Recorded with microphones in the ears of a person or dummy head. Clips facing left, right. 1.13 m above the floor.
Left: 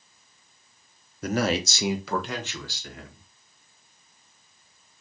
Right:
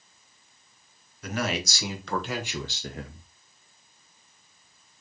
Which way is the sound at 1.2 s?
40° left (ahead or behind).